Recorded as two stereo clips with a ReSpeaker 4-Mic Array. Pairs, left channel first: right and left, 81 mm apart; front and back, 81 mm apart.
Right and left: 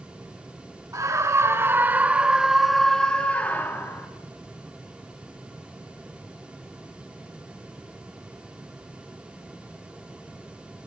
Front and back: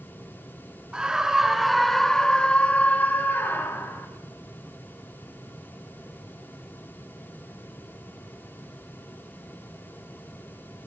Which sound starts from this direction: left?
A scream, at 0.9 s.